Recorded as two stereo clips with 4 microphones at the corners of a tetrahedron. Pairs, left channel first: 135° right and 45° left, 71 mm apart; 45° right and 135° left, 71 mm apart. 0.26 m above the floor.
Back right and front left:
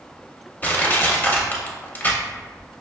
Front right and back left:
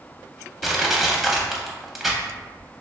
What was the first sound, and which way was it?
Crushing, 145° right.